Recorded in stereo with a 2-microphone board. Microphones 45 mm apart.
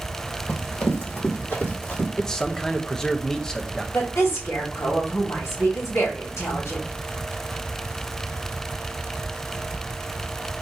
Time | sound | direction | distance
0.5 | running footsteps | 45° left (ahead or behind) | 2.5 m
2.2 | a man speaking | 15° left (ahead or behind) | 0.7 m
3.9 | a woman speaking | 75° left (ahead or behind) | 2.5 m